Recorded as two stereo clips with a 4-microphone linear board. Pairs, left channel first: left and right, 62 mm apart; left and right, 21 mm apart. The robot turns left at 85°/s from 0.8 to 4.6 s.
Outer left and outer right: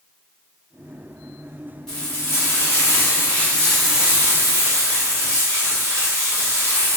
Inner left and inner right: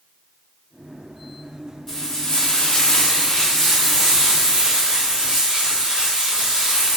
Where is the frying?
170° left, 1.2 m; by 7.0 s 65° right, 1.2 m.